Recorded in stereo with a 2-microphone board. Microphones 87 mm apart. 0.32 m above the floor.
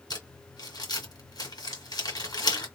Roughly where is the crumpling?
Left.